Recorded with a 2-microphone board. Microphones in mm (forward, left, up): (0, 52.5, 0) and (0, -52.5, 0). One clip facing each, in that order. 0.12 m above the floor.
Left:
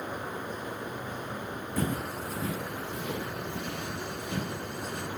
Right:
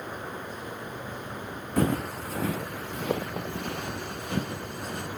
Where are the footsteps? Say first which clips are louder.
Right 6 dB; 60° right (ahead or behind), 0.6 m; by 5.1 s 50° right (ahead or behind), 2 m.